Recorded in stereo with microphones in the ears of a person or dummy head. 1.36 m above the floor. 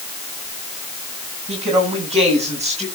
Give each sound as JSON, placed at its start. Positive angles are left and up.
{"t": 1.5, "sound": "a woman speaking", "side_deg": -30, "distance_m": 9.0}